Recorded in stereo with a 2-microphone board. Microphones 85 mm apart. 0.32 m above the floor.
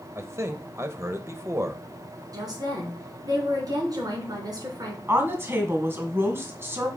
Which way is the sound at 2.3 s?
50° right (ahead or behind).